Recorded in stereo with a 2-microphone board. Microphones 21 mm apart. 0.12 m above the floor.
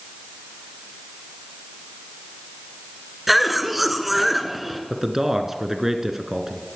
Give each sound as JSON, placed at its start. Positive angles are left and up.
{"t": 3.3, "sound": "a cough", "side_deg": -10, "distance_m": 1.4}
{"t": 4.9, "sound": "a man speaking", "side_deg": -20, "distance_m": 1.2}